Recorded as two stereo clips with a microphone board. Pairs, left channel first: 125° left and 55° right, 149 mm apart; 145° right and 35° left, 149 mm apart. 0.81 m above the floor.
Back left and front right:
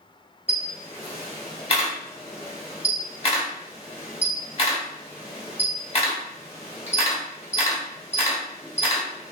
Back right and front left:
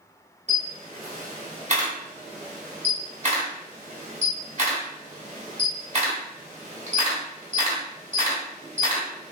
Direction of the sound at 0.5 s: 75° left.